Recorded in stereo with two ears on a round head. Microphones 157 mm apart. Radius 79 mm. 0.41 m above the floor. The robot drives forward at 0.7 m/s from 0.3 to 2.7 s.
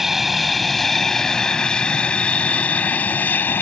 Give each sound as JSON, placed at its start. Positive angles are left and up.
{"t": 0.0, "sound": "an aircraft", "side_deg": 0}